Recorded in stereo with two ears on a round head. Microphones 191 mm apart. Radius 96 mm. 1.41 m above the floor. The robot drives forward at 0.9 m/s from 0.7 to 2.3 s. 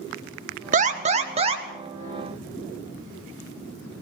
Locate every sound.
0.7 s an alarm: 40° right (ahead or behind), 2 m; by 1.6 s 30° right (ahead or behind), 2.5 m